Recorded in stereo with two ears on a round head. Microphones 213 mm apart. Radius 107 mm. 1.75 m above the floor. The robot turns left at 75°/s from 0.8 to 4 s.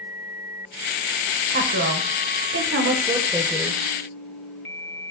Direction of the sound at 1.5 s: 35° right.